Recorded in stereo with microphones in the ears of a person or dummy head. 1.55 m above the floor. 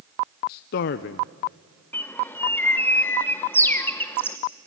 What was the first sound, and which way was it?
A man speaking, 55° left (ahead or behind).